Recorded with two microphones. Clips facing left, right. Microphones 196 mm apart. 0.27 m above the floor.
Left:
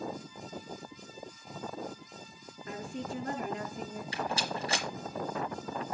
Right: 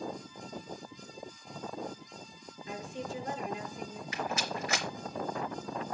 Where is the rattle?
30° left (ahead or behind), 3 m.